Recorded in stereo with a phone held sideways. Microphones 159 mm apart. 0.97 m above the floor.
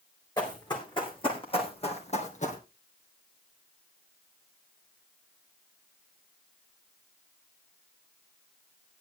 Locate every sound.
0.4 s running footsteps: 25° left (ahead or behind), 5 m; by 2.6 s 50° left (ahead or behind), 2.5 m